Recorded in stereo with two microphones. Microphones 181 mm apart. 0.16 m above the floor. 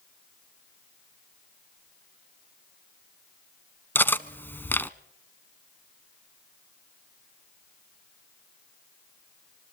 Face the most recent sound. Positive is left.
turn(degrees=10)  # may be behind; listen again after turning